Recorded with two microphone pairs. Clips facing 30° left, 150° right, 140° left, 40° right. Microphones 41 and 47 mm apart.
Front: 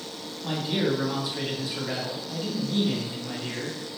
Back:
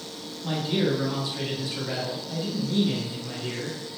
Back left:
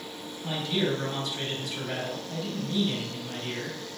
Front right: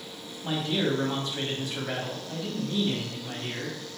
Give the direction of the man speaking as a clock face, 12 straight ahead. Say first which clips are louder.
Back 1 dB, front right 1 dB; 1 o'clock.